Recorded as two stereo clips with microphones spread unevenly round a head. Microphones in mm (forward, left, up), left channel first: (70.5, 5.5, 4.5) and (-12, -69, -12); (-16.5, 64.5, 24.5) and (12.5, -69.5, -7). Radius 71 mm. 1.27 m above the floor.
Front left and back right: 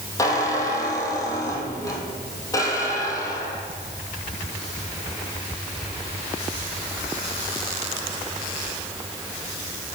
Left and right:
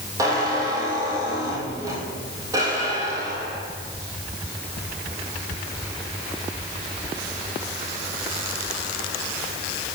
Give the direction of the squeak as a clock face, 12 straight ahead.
12 o'clock.